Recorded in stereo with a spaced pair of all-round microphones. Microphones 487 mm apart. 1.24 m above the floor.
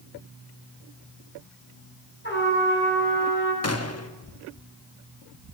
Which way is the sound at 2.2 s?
20° left (ahead or behind).